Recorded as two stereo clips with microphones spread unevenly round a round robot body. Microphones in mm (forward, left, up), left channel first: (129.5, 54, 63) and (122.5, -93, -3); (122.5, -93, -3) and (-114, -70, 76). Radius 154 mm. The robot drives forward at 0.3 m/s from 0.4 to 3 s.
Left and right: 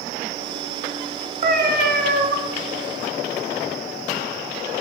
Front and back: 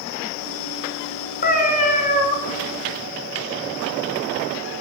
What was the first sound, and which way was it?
A cat meowing, 60° right.